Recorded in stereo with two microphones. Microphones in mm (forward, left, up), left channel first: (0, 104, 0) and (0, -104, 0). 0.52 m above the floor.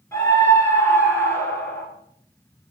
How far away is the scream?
About 7.5 m.